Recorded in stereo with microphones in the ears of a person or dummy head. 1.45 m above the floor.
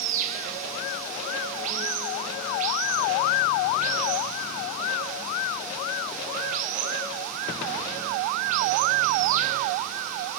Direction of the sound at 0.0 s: 40° right (ahead or behind).